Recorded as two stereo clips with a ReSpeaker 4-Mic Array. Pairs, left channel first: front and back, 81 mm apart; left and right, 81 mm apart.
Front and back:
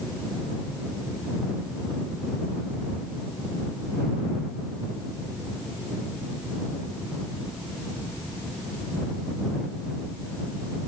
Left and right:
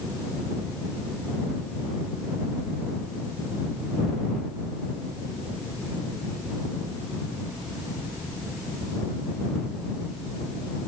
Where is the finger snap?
I don't hear a finger snap.